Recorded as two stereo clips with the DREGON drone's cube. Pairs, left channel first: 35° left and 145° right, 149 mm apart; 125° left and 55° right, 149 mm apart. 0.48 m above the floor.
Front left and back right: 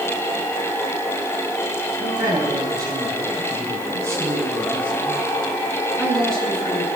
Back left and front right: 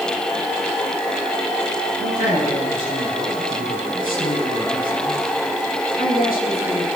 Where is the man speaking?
155° left, 9 m; by 6.9 s 120° left, 7 m.